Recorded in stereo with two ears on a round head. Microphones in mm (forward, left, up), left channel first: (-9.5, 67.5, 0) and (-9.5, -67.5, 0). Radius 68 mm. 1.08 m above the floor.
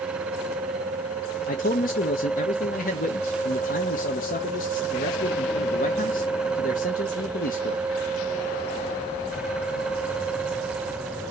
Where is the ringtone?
I don't hear a ringtone.